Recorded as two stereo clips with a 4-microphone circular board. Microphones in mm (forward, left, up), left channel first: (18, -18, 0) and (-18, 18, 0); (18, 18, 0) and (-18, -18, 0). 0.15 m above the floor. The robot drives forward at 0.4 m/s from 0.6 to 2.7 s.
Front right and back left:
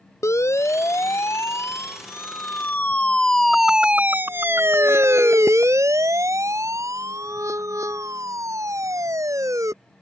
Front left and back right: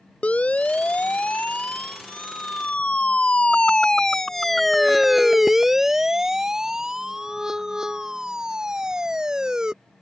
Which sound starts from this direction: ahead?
A siren, at 0.2 s.